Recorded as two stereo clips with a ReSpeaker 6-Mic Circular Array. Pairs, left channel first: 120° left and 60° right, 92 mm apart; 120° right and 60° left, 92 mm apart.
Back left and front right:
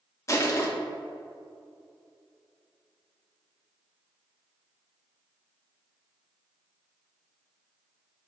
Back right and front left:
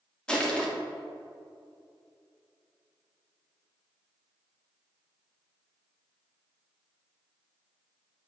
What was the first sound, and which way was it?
Crushing, 165° left.